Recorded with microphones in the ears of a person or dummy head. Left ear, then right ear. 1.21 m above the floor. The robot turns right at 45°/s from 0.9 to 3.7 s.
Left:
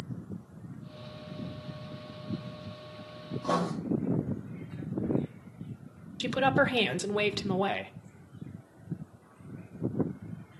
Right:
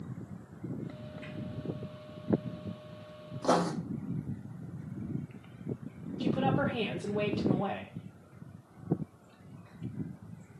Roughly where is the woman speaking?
Left.